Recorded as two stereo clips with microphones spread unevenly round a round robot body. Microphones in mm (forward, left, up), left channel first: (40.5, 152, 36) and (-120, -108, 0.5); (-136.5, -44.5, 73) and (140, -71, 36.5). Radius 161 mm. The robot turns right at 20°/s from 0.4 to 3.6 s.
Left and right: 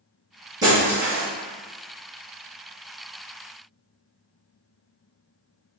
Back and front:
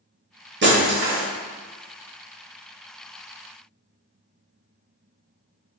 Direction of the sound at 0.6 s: 45° right.